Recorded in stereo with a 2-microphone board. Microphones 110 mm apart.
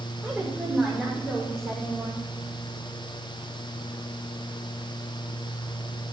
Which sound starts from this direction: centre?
A woman speaking, at 0.2 s.